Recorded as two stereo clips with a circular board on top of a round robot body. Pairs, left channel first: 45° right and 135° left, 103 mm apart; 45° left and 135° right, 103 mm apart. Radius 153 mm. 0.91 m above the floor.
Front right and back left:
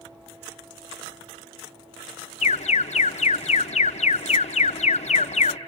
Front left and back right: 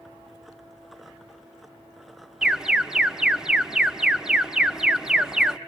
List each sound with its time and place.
2.4 s an alarm: 50° right, 0.5 m